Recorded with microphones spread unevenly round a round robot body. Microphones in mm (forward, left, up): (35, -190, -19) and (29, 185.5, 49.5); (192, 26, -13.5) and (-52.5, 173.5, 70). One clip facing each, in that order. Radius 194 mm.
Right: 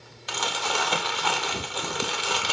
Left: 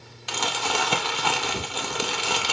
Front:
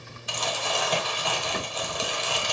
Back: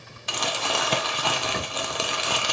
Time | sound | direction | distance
0.3 | crumpling | 145° left | 1.2 m